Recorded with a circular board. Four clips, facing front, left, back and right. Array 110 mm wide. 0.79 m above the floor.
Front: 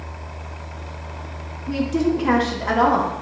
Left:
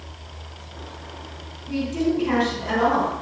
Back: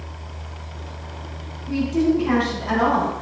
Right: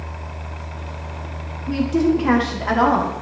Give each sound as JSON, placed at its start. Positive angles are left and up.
{"t": 1.7, "sound": "a woman speaking", "azimuth_deg": -55, "distance_m": 1.7}